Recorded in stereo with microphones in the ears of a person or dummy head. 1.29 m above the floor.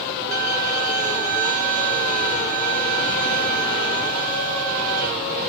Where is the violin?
40° right (ahead or behind), 0.6 m.